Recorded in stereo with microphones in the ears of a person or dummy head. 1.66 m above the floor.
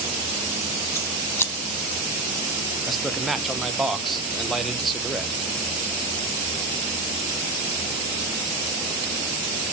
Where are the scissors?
10° left (ahead or behind), 1.3 m.